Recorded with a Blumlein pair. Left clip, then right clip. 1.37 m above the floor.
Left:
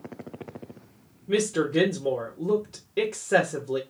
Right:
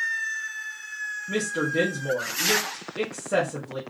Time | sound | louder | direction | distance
1.3 | a woman speaking | left 4 dB | 15° left | 0.9 m